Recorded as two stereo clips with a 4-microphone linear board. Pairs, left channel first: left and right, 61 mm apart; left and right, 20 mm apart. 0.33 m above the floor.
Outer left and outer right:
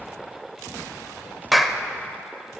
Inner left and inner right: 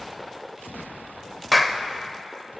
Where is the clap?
Centre (ahead or behind), 0.7 m.